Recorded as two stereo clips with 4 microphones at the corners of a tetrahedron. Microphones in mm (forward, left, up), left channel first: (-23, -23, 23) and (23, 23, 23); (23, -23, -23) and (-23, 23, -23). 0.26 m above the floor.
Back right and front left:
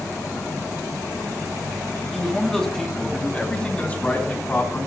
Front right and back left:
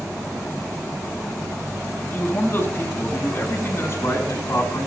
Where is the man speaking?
45° right, 1.6 m; by 4.9 s 80° right, 3 m.